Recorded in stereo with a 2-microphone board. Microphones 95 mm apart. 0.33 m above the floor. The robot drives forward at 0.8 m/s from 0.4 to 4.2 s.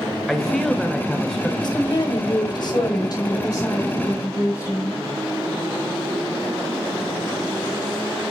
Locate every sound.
0.3 s a man speaking: 5° left (ahead or behind), 1.0 m
1.6 s a woman speaking: 45° left (ahead or behind), 1.5 m; by 5.0 s 30° left (ahead or behind), 2.5 m